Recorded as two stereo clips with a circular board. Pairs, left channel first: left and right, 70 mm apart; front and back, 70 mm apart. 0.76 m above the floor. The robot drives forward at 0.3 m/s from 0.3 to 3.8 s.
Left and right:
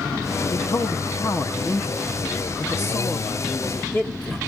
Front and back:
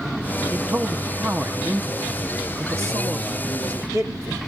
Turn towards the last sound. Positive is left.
turn(degrees=145)